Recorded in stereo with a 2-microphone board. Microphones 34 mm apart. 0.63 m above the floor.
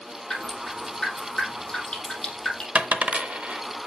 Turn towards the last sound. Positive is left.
turn(degrees=-40)  # may be behind; listen again after turning